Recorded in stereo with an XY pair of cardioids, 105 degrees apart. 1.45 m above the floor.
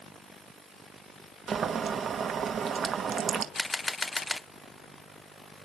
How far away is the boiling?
About 1.8 m.